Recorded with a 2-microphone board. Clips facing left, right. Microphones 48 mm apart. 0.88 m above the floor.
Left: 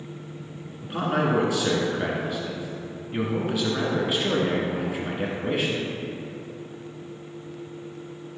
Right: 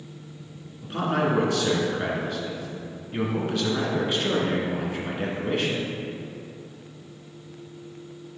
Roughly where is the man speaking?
Centre.